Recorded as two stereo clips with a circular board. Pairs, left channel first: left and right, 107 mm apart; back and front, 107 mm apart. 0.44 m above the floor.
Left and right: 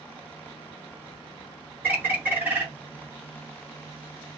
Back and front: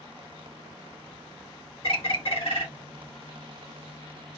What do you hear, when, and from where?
1.8 s a bird: 160° right, 1.0 m